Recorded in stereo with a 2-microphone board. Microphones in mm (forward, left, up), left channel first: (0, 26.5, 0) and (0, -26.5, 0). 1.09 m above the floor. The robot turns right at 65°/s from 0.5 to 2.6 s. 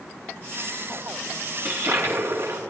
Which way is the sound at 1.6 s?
135° right.